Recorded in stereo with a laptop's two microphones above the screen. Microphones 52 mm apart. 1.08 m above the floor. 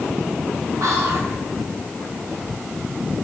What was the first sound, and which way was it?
Whispering, 80° right.